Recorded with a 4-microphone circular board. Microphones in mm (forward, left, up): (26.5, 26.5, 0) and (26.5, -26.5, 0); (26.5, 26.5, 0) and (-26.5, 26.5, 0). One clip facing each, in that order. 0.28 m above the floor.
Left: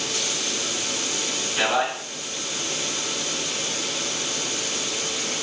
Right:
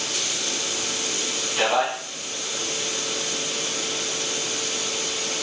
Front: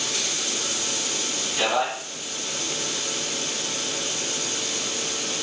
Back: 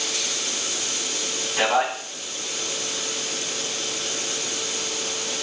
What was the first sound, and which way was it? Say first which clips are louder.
A man speaking: right 1 dB, back 3 dB; 175° right.